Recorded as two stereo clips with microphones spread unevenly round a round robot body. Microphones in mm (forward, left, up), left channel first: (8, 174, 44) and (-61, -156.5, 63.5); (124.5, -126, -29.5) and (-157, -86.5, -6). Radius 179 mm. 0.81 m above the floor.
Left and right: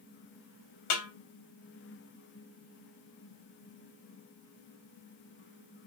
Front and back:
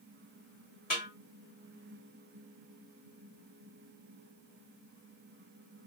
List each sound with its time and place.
0.9 s a snare drum: 60° left, 1.1 m